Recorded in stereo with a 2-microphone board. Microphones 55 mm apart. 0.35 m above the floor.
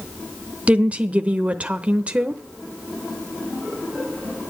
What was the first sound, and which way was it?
A woman speaking, 25° right (ahead or behind).